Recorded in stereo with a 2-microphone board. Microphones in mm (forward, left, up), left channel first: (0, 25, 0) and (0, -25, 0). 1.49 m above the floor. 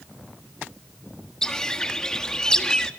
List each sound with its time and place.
1.4 s a bird: 15° left (ahead or behind), 1.4 m